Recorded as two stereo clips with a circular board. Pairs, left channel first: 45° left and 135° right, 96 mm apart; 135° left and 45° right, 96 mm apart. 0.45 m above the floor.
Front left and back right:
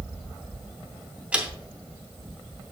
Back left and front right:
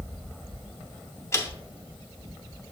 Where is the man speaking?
160° left, 0.8 m.